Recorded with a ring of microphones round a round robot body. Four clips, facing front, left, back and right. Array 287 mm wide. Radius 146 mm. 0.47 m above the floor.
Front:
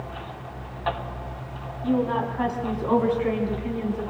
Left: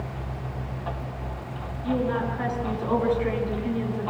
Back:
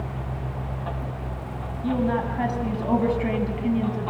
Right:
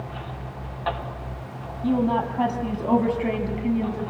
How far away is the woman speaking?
About 4.5 m.